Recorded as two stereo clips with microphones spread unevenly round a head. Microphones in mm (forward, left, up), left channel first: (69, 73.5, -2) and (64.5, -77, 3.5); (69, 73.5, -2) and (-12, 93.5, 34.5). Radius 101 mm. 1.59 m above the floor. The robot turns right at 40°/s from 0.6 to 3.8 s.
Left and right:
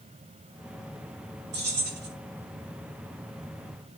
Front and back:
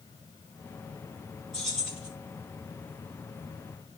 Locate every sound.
1.5 s keys jangling: 110° right, 8 m; by 2.1 s 85° right, 8 m